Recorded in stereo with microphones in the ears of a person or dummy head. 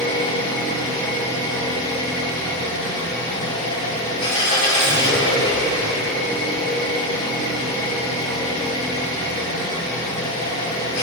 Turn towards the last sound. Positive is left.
turn(degrees=40)  # may be behind; listen again after turning